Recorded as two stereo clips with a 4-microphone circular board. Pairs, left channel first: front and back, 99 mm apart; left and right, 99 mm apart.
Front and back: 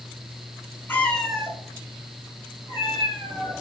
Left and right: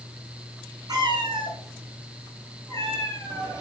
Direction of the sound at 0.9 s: 60° right.